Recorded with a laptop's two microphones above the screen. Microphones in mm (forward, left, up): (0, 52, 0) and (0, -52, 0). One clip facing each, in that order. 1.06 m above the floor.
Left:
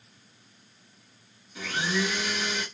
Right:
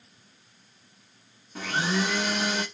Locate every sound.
1.6 s a blender: 55° right (ahead or behind), 1.7 m